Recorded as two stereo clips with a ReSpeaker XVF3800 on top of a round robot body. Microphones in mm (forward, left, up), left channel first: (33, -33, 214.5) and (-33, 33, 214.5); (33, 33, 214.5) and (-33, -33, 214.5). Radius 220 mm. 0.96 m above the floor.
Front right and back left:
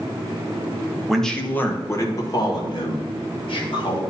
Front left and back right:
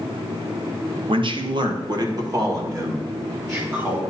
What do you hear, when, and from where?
1.1 s a man speaking: 135° right, 1.4 m; by 4.0 s 70° right, 4 m